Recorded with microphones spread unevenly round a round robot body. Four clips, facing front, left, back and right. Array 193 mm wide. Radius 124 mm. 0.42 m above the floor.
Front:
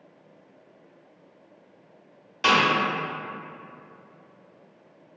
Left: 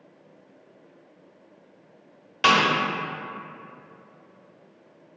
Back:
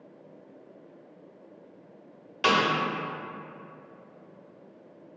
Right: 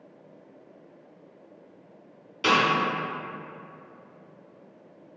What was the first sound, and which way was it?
A snare drum, 85° left.